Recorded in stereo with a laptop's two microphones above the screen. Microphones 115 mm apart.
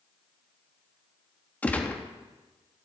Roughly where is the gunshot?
Centre.